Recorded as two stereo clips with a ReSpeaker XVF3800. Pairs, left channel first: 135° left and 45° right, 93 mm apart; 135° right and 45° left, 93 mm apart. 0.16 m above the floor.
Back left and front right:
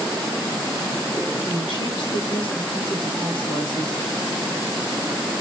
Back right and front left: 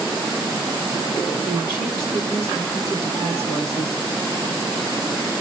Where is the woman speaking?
135° left, 2.5 m.